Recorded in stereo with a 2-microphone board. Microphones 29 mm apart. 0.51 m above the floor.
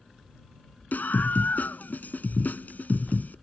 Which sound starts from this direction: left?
A scream, at 0.9 s.